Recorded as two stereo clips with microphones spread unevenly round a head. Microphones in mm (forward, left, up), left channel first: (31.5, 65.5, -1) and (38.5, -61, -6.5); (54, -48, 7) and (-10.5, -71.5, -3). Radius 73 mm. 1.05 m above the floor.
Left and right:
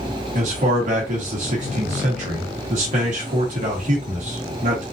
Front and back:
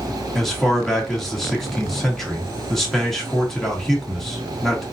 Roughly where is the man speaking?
Ahead right.